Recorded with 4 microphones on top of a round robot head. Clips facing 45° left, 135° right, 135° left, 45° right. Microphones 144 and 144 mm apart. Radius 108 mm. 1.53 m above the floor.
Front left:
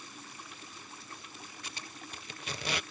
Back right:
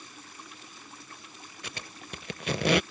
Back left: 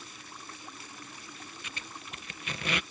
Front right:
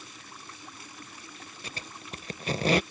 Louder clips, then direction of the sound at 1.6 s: Back right 6 dB, front right 6 dB; 105° right.